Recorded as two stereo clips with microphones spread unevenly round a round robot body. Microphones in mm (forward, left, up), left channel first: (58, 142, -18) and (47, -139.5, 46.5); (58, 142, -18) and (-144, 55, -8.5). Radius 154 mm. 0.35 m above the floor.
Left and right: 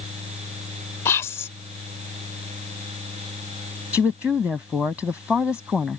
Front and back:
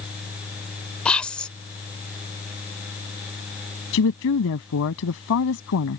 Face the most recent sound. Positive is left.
turn(degrees=0)